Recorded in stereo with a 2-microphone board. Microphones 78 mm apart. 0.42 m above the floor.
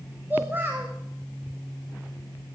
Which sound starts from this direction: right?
A child speaking, at 0.3 s.